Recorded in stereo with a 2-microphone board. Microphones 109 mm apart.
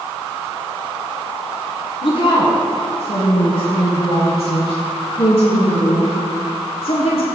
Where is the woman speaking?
55° left (ahead or behind), 2 m; by 7.3 s 65° left (ahead or behind), 5.5 m.